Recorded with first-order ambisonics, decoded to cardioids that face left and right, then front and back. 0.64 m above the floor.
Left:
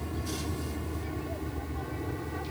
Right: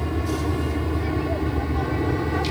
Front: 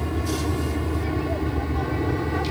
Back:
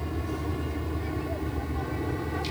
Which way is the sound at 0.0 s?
60° right.